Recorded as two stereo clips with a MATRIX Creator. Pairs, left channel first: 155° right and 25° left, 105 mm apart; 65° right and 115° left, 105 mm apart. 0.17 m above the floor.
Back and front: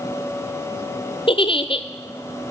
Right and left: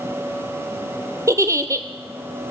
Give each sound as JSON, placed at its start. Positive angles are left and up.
{"t": 1.3, "sound": "a giggle", "azimuth_deg": 175, "distance_m": 0.7}